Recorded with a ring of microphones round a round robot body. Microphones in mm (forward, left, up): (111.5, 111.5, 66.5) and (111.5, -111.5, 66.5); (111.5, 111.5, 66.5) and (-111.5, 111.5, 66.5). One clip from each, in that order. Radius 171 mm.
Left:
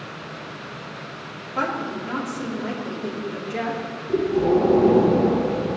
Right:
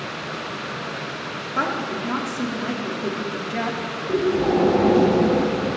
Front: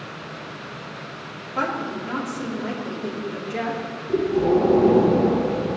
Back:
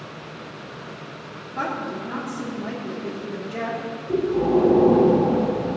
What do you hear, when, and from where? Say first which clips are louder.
1.6 s a woman speaking: right 1 dB, front 2 dB; 45° right, 3 m
4.1 s breathing: left 1 dB, front 1 dB; 105° right, 5 m